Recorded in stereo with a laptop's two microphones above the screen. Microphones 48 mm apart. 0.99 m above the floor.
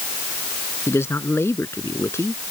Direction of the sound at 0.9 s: 60° left (ahead or behind).